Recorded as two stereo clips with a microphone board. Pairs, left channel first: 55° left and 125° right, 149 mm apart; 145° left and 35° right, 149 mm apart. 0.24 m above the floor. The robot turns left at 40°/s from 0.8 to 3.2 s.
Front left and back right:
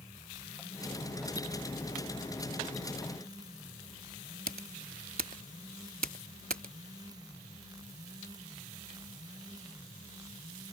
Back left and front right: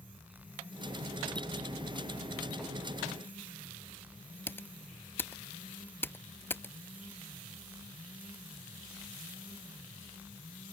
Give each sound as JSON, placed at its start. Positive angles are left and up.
{"t": 4.5, "sound": "typing on a keyboard", "azimuth_deg": -140}